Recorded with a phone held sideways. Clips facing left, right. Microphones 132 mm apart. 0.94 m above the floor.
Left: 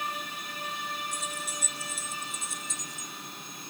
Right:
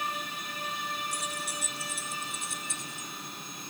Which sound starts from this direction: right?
Keys jangling, at 1.1 s.